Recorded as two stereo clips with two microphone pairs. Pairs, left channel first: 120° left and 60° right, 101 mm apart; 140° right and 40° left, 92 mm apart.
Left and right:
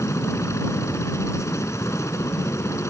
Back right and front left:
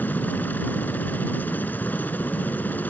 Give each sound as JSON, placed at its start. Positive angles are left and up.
{"t": 0.0, "sound": "a helicopter", "azimuth_deg": 160}